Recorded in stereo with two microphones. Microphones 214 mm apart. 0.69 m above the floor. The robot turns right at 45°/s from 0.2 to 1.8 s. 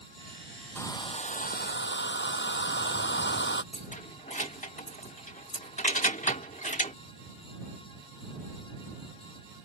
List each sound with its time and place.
0.8 s a hair dryer: 10° left; by 3.6 s 55° left
3.7 s keys jangling: 35° left (ahead or behind)